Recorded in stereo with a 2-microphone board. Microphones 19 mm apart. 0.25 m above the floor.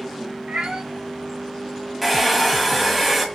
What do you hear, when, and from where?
0.5 s a cat meowing: 75° right (ahead or behind), 1.6 m
2.0 s a hair dryer: centre (ahead or behind), 1.3 m